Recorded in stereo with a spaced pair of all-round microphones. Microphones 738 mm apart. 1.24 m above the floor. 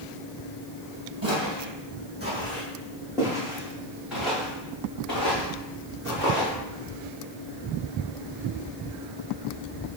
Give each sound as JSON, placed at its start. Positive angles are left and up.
{"t": 1.2, "sound": "footsteps", "side_deg": -30, "distance_m": 2.0}